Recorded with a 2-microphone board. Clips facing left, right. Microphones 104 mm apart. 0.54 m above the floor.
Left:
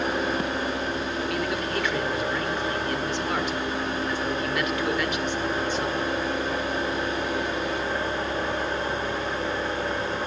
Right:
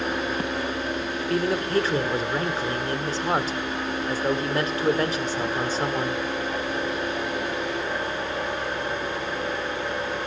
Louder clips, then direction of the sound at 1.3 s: Right 9 dB; 35° right (ahead or behind).